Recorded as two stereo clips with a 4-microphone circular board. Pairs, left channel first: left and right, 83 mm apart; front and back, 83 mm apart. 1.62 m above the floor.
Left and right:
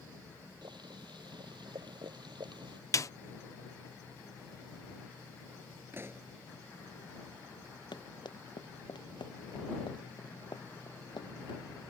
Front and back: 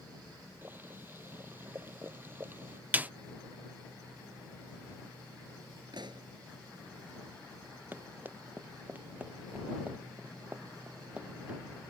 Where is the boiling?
115° right.